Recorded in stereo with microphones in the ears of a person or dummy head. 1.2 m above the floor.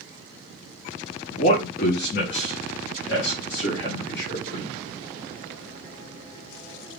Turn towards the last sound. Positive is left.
turn(degrees=65)  # may be behind; listen again after turning